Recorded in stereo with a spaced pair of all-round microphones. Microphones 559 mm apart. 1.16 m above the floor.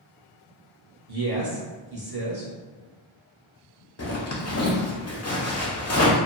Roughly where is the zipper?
Left.